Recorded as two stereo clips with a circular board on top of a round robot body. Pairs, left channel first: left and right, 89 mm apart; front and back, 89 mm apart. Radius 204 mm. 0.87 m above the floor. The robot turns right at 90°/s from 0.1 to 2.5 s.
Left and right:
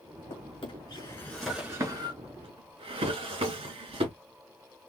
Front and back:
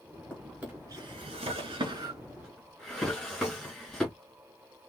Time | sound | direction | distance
0.3 | a drawer | 70° left | 2.5 m